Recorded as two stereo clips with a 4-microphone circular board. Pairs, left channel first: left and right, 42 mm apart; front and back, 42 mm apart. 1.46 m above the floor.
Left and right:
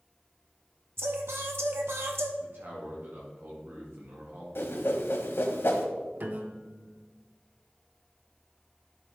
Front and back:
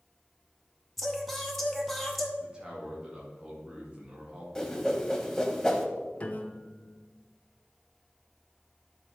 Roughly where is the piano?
Ahead right.